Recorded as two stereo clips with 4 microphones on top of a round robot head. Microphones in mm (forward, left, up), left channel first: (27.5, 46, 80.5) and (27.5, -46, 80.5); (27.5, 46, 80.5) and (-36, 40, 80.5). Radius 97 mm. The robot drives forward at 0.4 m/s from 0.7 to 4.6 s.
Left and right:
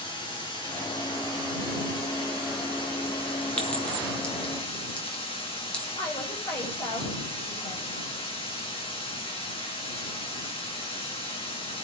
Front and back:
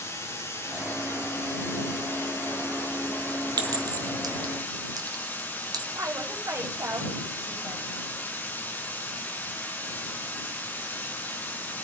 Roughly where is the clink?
Behind.